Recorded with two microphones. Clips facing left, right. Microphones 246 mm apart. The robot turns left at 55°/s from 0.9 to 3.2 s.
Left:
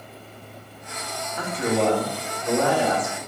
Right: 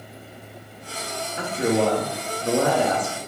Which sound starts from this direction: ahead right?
A man speaking, at 1.4 s.